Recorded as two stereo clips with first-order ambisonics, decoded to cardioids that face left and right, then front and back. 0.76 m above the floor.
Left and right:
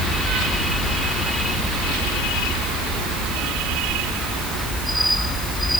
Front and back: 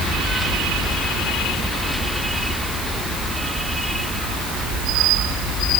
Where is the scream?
I don't hear a scream.